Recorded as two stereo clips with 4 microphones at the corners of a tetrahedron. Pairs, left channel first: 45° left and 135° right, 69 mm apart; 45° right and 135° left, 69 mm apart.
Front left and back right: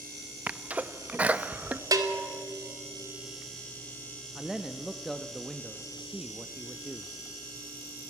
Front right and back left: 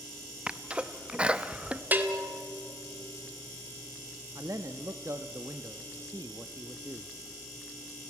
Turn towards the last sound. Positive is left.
turn(degrees=140)